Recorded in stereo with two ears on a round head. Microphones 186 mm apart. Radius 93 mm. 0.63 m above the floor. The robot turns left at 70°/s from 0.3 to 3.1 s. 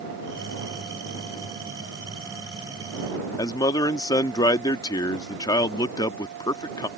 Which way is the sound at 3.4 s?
20° left (ahead or behind).